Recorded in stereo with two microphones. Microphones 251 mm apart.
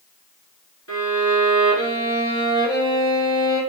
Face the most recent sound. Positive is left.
turn(degrees=80)